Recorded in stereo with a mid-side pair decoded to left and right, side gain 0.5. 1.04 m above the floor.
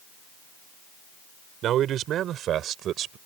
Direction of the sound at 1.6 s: 65° right.